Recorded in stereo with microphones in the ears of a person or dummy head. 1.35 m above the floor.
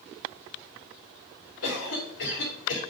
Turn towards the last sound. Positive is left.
turn(degrees=80)